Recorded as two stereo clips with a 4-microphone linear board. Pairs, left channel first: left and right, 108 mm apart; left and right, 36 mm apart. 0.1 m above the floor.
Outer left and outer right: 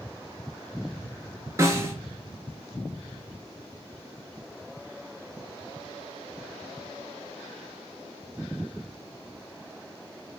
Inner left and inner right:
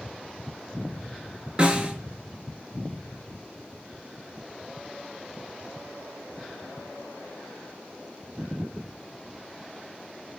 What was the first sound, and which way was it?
A snare drum, 25° right (ahead or behind).